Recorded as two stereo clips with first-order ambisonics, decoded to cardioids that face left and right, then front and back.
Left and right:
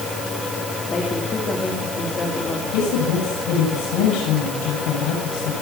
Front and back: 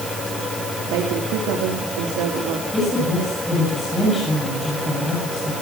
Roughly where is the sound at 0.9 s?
Behind.